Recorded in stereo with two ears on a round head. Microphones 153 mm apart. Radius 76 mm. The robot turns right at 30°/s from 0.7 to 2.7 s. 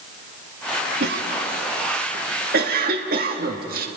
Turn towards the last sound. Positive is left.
turn(degrees=-55)  # may be behind; listen again after turning